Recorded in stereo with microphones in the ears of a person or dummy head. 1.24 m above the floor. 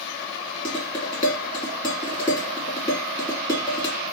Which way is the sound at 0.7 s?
30° left (ahead or behind).